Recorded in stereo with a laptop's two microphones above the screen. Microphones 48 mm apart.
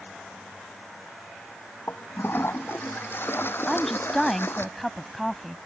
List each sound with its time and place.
1.9 s a toilet flushing: 60° left (ahead or behind)
3.7 s a woman speaking: 5° left (ahead or behind)